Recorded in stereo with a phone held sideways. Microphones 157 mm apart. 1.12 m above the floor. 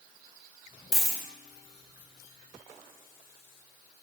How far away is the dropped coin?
About 0.5 m.